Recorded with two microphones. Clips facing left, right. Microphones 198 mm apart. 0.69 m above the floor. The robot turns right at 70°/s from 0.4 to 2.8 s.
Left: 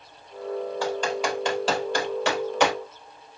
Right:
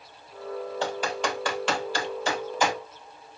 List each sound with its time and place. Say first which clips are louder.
0.8 s typing on a keyboard: left 2 dB; 20° right (ahead or behind), 3 m; by 2.7 s 65° left (ahead or behind), 3 m